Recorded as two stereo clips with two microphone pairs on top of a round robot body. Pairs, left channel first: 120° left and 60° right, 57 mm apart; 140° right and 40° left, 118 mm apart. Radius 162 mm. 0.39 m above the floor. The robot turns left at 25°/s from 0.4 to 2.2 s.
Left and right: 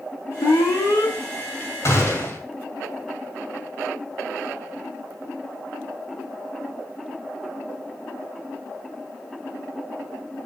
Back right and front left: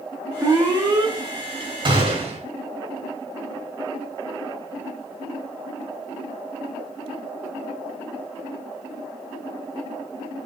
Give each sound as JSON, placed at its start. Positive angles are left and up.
{"t": 0.4, "sound": "an alarm", "azimuth_deg": 115, "distance_m": 4.0}
{"t": 1.9, "sound": "a gunshot", "azimuth_deg": 85, "distance_m": 5.0}